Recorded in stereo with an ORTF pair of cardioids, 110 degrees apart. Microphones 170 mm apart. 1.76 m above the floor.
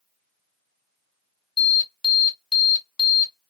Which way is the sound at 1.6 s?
30° left.